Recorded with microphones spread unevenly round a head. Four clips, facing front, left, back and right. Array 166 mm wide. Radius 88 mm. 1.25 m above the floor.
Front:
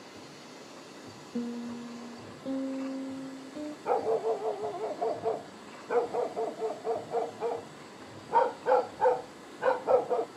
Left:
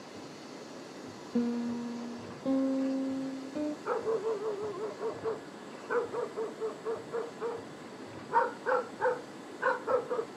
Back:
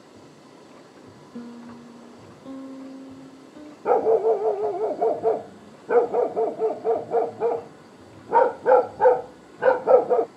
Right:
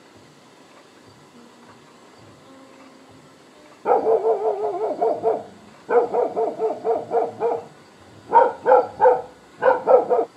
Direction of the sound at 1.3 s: 80° left.